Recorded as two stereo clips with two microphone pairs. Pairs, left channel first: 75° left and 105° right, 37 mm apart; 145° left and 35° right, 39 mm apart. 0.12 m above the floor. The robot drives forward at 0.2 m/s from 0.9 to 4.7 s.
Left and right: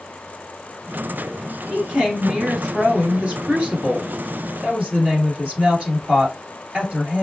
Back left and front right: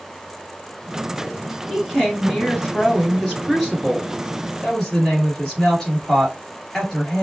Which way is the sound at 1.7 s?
130° right.